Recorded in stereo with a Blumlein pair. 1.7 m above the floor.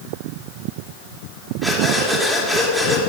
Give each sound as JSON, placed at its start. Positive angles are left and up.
{"t": 1.6, "sound": "breathing", "azimuth_deg": 0, "distance_m": 3.0}